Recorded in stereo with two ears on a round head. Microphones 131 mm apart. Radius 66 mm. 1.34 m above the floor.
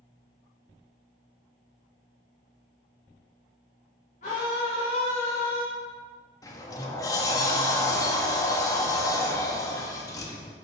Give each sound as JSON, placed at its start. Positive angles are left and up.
{"t": 4.2, "sound": "a scream", "side_deg": 55, "distance_m": 1.8}
{"t": 6.4, "sound": "a sliding door", "side_deg": 25, "distance_m": 0.8}